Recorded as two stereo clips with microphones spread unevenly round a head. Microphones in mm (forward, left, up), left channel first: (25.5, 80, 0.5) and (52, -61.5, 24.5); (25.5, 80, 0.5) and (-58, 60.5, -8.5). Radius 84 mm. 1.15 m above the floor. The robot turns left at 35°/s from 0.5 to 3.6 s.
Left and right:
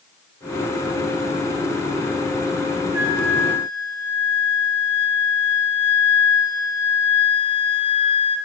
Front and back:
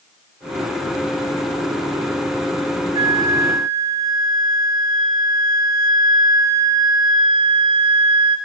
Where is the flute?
150° right, 0.8 m; by 8.4 s 175° right, 0.8 m.